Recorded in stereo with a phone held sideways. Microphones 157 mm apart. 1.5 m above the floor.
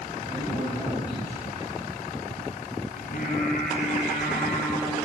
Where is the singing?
60° left (ahead or behind), 2.5 m.